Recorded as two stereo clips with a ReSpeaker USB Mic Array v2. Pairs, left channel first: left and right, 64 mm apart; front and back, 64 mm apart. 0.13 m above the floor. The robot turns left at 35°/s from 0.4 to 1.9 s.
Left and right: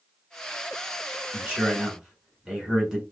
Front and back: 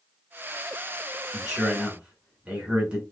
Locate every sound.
1.3 s a man speaking: 120° right, 1.6 m; by 3.0 s 140° right, 1.6 m